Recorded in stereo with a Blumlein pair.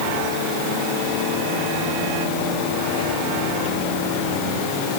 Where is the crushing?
I don't hear crushing.